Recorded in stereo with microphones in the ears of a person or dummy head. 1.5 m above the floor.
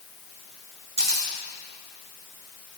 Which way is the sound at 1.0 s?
65° right (ahead or behind).